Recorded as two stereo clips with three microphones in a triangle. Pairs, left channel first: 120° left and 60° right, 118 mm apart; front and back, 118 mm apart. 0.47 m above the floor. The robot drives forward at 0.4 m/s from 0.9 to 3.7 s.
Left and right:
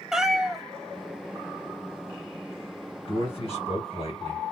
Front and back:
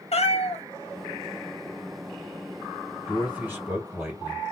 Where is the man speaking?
100° left, 1.9 m; by 4.4 s 110° left, 2.0 m.